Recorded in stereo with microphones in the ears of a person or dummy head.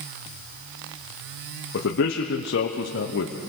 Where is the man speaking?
60° left (ahead or behind), 1.1 m.